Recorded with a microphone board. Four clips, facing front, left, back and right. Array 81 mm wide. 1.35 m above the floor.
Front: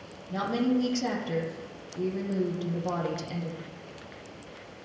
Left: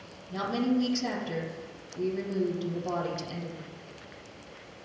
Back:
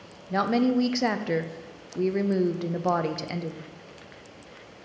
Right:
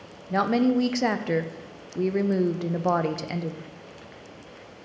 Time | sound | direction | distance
0.3 | a woman speaking | 125° right | 0.6 m